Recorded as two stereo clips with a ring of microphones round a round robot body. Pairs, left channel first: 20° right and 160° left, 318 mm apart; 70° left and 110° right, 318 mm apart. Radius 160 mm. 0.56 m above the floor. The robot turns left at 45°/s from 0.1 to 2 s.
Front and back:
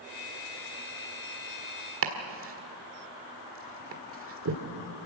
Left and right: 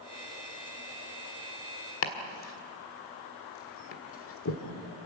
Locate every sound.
2.0 s chopping: 110° left, 1.6 m